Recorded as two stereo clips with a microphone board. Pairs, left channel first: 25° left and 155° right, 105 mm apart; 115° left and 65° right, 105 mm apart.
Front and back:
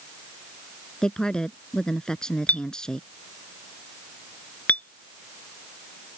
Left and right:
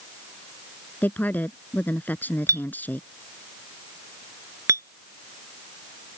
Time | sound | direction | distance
1.0 | a woman speaking | 90° left | ?
2.5 | a clink | 40° right | ?